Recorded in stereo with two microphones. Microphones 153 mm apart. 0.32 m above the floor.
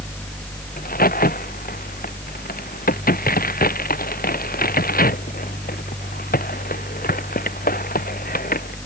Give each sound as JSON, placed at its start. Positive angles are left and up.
{"t": 0.8, "sound": "a crack", "side_deg": 75}